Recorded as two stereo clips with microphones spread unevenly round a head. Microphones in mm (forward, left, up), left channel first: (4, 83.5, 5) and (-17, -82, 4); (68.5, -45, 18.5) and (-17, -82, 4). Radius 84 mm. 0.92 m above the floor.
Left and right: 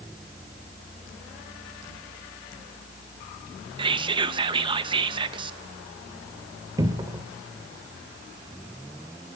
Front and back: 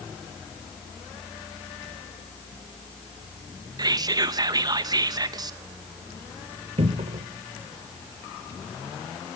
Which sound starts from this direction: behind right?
Whispering, at 3.8 s.